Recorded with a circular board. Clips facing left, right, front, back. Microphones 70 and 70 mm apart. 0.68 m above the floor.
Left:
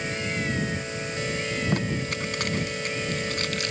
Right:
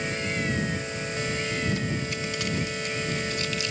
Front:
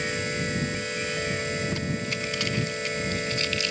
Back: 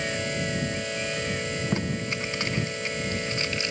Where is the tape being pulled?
120° left.